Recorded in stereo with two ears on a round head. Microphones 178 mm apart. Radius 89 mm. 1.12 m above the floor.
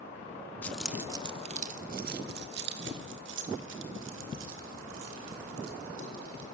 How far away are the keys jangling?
About 0.7 m.